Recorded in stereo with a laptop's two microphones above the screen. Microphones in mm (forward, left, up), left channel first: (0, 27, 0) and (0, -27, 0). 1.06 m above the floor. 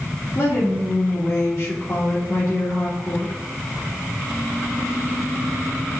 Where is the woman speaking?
40° left (ahead or behind), 2.5 m.